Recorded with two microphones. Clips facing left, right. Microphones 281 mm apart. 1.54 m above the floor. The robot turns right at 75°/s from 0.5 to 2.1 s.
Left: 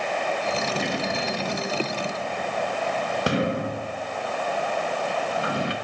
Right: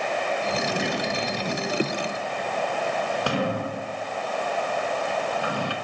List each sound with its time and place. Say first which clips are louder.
0.6 s a sliding door: even; 5° right (ahead or behind), 0.9 m; by 5.7 s 20° left (ahead or behind), 0.9 m